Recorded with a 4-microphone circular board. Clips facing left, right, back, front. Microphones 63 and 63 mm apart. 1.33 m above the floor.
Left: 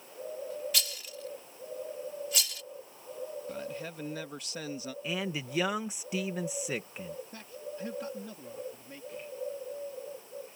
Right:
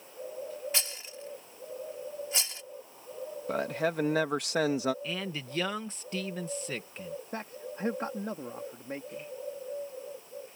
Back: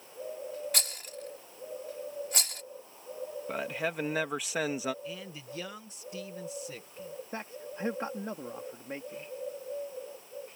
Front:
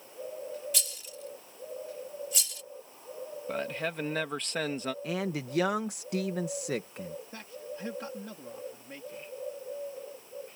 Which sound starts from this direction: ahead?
A man speaking, at 5.0 s.